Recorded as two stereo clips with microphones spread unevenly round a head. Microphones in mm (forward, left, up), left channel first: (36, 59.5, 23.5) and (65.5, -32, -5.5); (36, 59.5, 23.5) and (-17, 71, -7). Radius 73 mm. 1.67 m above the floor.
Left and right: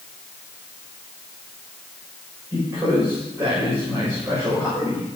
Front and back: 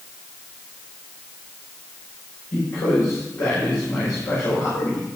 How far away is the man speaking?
About 6.5 m.